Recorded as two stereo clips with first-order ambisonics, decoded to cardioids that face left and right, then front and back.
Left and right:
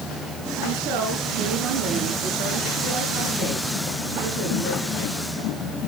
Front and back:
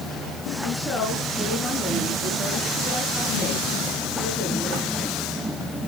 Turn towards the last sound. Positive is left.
turn(degrees=-80)